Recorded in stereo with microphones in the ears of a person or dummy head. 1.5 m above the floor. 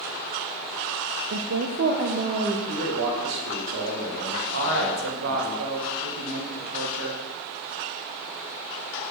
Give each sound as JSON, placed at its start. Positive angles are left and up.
{"t": 1.3, "sound": "a woman speaking", "side_deg": -75, "distance_m": 0.6}
{"t": 2.7, "sound": "a man speaking", "side_deg": -70, "distance_m": 2.0}
{"t": 4.5, "sound": "a woman speaking", "side_deg": -85, "distance_m": 1.7}